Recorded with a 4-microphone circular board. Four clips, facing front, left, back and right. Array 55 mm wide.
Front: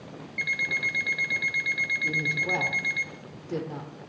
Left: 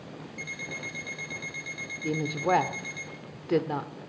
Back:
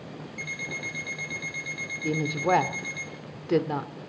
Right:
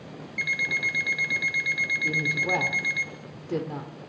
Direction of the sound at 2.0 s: 145° left.